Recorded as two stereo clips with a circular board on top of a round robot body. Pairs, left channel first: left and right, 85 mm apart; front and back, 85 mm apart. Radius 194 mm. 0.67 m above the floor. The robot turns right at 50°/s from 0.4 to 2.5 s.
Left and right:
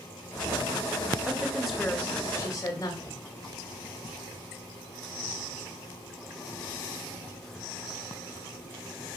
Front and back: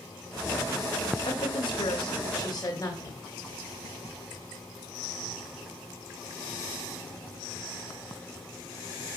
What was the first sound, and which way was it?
A woman speaking, 20° right.